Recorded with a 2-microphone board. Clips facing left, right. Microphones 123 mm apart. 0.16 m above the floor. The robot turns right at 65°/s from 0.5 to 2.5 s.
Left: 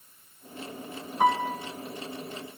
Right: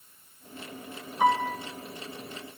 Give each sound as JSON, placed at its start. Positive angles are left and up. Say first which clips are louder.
{"t": 1.2, "sound": "a piano", "louder": "even", "side_deg": 50, "distance_m": 2.5}